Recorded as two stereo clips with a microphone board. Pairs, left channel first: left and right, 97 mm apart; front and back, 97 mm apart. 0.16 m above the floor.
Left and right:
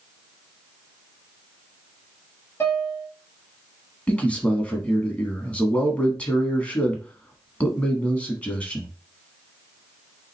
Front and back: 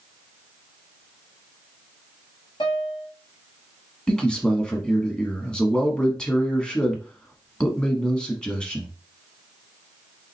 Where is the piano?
25° left, 1.3 m.